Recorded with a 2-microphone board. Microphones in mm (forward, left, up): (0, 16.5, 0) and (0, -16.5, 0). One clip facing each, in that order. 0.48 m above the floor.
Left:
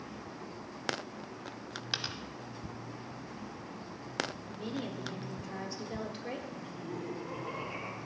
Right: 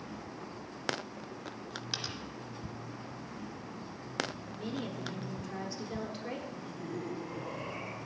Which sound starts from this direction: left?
Laughter, at 6.5 s.